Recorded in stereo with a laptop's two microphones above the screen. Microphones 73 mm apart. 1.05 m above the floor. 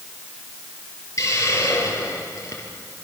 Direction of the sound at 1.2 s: 40° left (ahead or behind).